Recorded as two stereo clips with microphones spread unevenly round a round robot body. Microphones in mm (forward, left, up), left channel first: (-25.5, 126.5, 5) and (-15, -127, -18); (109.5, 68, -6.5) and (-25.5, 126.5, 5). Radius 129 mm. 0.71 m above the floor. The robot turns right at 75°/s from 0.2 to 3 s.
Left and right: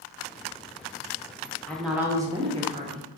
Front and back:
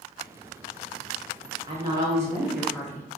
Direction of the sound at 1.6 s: Straight behind.